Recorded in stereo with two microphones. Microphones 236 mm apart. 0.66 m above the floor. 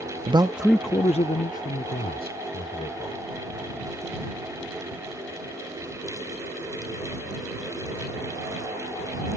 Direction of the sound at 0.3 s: 25° right (ahead or behind).